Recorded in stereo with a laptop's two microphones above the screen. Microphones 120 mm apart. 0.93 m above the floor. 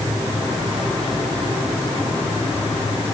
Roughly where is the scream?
I don't hear a scream.